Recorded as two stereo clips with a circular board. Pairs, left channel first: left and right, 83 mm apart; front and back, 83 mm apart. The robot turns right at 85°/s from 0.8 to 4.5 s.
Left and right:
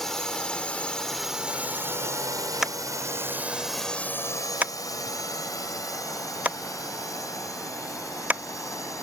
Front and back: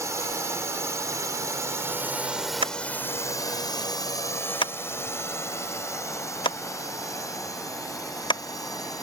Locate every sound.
0.0 s a drone: 175° left; by 9.0 s 40° left
2.6 s tapping: straight behind; by 8.4 s 20° right